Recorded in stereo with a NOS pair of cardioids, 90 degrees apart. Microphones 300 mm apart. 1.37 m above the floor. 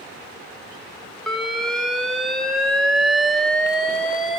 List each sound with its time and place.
1.3 s an alarm: straight ahead, 3.5 m